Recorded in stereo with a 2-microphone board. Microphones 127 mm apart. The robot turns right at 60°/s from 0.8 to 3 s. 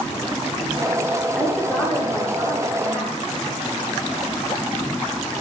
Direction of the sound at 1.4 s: Straight ahead.